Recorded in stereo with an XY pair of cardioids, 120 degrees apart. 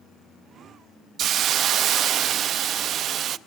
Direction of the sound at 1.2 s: 55° right.